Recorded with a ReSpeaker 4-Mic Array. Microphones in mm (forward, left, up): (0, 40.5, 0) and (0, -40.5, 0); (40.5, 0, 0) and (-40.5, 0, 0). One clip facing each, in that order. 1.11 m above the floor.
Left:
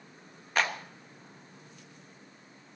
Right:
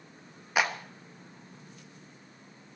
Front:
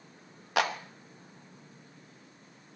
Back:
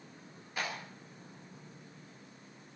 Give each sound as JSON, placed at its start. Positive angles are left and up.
{"t": 0.6, "sound": "a clap", "azimuth_deg": -10, "distance_m": 1.0}